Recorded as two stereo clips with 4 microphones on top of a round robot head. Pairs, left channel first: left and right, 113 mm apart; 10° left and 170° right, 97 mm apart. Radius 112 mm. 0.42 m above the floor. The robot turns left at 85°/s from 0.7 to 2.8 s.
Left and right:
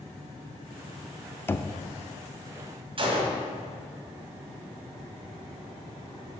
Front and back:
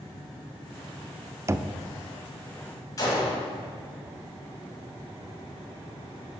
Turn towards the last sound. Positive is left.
turn(degrees=-50)